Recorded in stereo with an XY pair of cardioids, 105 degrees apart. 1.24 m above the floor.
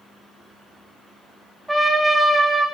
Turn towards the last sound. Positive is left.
turn(degrees=-5)